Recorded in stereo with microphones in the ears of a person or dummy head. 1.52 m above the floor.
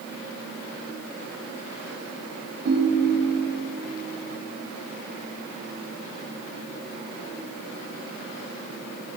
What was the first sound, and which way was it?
A ringtone, 65° right (ahead or behind).